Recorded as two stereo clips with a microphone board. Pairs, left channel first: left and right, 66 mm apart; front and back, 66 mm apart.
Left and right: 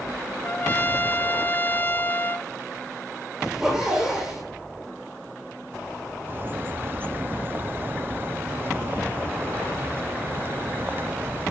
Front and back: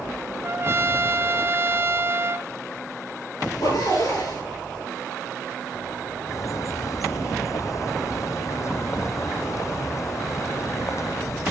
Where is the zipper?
10° right, 7.5 m.